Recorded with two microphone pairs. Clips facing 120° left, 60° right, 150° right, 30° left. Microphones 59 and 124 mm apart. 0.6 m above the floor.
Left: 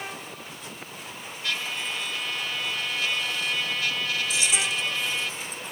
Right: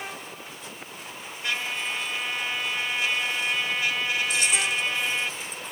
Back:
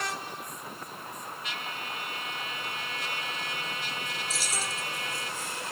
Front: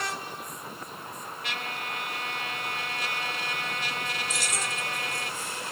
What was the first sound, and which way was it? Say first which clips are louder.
A trumpet: right 2 dB, front 4 dB; 10° left.